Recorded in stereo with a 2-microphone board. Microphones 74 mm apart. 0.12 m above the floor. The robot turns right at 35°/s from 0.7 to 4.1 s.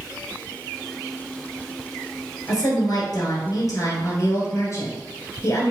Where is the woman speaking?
60° left, 1.5 m; by 5.7 s 115° left, 1.5 m.